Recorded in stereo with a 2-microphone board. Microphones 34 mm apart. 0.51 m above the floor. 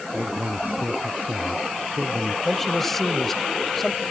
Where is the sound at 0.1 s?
60° right (ahead or behind).